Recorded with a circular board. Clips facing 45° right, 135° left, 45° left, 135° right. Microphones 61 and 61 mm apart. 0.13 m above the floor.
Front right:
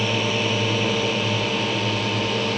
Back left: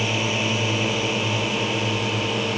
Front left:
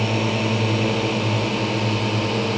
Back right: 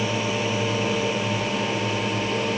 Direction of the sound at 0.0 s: 60° left.